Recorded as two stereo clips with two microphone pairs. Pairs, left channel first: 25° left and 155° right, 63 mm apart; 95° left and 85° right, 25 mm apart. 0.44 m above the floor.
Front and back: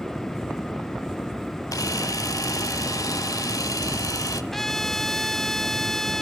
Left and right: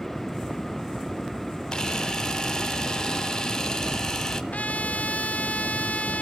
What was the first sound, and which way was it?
A camera shutter, 25° left.